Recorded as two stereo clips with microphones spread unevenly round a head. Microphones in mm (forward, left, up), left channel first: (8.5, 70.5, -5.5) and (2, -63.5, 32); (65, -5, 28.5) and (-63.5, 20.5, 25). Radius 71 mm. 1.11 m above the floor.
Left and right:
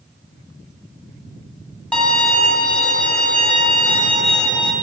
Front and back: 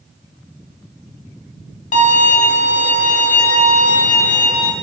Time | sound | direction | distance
1.9 | a violin | 10° left | 1.3 m